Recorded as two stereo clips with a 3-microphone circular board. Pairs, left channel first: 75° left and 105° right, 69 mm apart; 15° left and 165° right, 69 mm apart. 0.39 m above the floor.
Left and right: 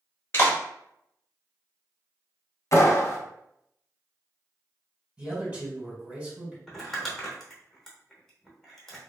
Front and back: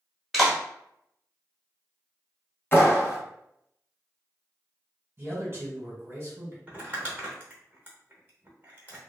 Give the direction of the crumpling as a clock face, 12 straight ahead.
7 o'clock.